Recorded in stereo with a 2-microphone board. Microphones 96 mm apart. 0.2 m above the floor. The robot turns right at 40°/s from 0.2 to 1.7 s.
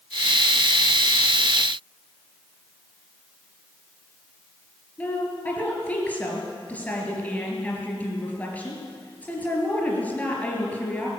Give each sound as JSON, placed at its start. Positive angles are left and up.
{"t": 5.0, "sound": "a woman speaking", "side_deg": 15, "distance_m": 3.5}